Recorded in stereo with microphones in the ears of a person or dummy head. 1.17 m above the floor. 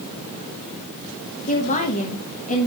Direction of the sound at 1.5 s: 40° left (ahead or behind).